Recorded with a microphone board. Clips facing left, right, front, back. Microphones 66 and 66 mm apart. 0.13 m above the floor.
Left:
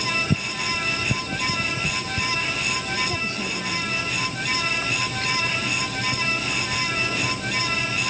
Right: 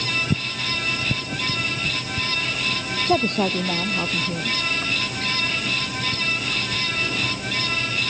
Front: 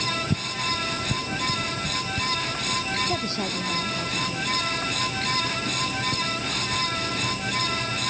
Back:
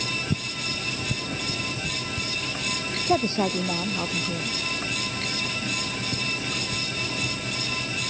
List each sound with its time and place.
3.1 s a woman speaking: 120° right